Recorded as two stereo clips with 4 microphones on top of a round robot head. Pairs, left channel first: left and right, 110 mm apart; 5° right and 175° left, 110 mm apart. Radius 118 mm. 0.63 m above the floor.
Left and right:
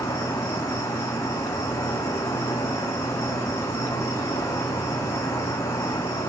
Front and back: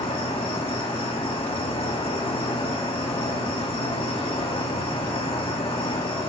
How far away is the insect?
About 2.5 m.